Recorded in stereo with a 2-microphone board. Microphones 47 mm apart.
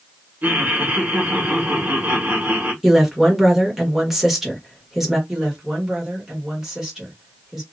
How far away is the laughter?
About 1.4 m.